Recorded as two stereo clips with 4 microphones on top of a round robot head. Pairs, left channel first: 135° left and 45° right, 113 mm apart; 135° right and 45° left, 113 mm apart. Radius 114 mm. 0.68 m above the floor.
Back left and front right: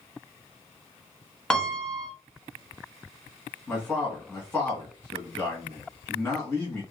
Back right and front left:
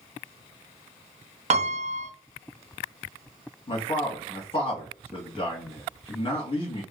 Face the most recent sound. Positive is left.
turn(degrees=-160)